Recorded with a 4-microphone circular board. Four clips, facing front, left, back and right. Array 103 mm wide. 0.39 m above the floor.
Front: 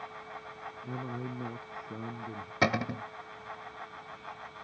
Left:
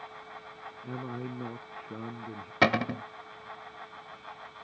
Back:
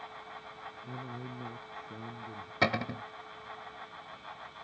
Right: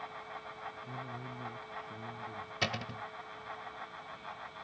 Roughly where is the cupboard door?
Left.